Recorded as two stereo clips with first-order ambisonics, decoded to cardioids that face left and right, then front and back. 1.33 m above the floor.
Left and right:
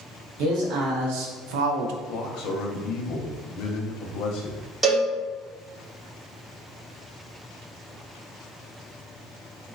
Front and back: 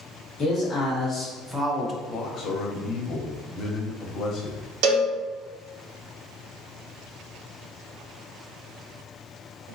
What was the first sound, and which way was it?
A man speaking, 70° right.